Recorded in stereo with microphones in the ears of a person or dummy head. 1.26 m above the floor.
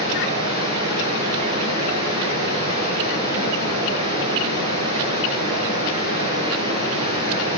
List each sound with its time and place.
0.0 s running water: 30° right (ahead or behind), 2.5 m